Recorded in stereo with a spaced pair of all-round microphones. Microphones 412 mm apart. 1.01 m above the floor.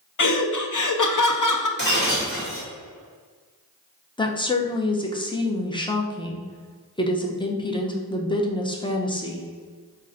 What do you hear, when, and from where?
0.2 s laughter: 55° left (ahead or behind), 0.6 m
1.8 s breaking glass: 25° left (ahead or behind), 1.9 m
4.2 s a woman speaking: 15° left (ahead or behind), 0.6 m